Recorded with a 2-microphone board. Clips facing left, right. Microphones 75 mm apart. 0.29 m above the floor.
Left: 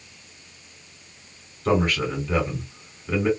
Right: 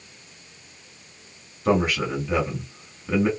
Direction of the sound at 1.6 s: 10° right (ahead or behind).